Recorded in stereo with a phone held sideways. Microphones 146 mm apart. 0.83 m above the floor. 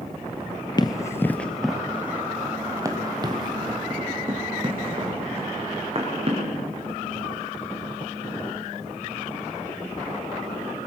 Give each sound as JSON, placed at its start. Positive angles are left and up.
{"t": 0.8, "sound": "running footsteps", "side_deg": 30, "distance_m": 0.9}